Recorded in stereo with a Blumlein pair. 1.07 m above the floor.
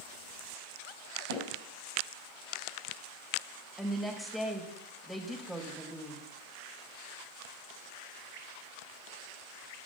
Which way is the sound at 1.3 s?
60° right.